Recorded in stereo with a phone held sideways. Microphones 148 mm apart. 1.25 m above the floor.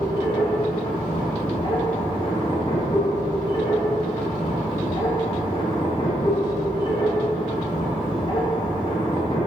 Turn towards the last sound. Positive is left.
turn(degrees=30)  # may be behind; listen again after turning